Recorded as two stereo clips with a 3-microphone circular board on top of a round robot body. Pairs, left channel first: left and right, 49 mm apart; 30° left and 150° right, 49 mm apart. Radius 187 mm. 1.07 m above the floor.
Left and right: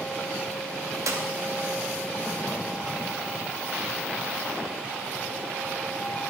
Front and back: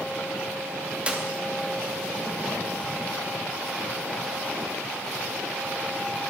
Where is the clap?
80° right, 2.5 m.